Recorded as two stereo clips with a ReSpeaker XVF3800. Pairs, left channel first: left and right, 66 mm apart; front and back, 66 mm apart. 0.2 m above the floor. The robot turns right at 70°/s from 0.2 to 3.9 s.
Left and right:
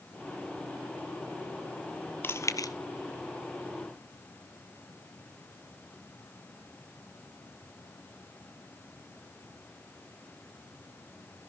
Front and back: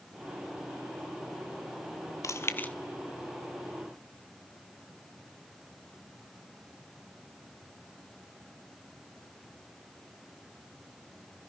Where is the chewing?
35° left, 0.9 m; by 2.7 s 70° left, 0.9 m.